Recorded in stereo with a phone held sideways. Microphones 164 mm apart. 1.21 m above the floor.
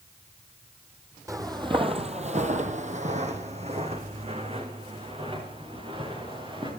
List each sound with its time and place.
1.3 s footsteps: 20° right (ahead or behind), 1.9 m; by 6.7 s 30° right (ahead or behind), 6.5 m